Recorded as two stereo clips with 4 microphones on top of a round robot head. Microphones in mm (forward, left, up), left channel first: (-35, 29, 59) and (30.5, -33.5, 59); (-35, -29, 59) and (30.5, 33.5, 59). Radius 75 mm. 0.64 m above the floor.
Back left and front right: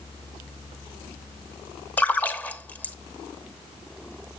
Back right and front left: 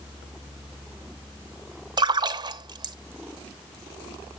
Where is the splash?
65° left, 1.0 m.